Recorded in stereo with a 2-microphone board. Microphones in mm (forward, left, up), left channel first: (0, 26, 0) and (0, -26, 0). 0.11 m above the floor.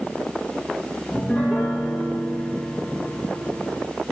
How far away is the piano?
About 2.5 m.